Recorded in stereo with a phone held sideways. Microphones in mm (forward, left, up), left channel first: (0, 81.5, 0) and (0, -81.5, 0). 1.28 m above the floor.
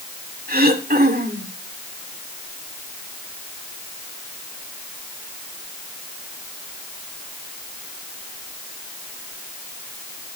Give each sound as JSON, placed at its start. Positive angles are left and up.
{"t": 0.5, "sound": "throat clearing", "side_deg": -60, "distance_m": 2.5}